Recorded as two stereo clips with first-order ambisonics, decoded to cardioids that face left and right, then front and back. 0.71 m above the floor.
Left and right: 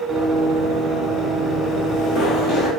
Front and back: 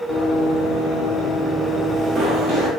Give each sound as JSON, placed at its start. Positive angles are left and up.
{"t": 0.1, "sound": "running footsteps", "azimuth_deg": 25, "distance_m": 1.8}